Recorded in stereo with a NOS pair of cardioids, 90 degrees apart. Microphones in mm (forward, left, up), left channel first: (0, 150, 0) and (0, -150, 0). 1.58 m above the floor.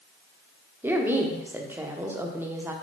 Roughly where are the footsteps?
I don't hear footsteps.